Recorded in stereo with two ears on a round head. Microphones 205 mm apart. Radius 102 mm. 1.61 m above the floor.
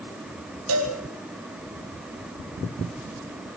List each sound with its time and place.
0.7 s a cowbell: 75° right (ahead or behind), 6 m